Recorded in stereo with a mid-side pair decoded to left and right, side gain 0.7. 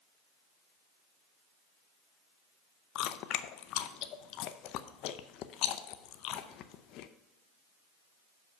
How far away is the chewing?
About 0.6 m.